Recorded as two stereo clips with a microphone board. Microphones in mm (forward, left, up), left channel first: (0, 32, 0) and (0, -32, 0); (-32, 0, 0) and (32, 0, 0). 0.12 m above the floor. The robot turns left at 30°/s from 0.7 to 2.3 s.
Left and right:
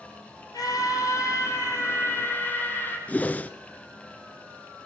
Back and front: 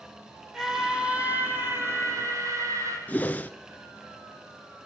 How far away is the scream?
About 5 m.